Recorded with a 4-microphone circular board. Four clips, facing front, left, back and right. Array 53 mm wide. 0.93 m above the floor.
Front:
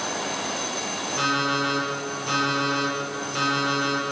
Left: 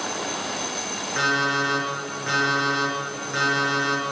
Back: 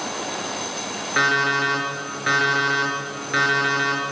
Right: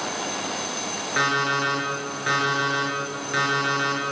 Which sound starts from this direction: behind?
An alarm clock, at 1.2 s.